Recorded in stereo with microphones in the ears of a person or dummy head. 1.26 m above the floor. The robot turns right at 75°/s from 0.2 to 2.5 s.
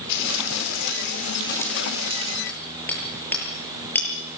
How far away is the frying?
About 4 m.